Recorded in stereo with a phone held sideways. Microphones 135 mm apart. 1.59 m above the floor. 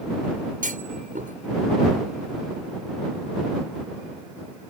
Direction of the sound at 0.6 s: 80° right.